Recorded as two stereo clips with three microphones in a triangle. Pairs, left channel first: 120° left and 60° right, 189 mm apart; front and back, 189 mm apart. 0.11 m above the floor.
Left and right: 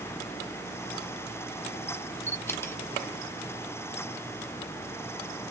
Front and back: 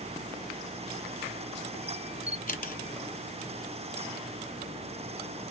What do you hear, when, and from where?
2.3 s a camera shutter: 45° left, 0.7 m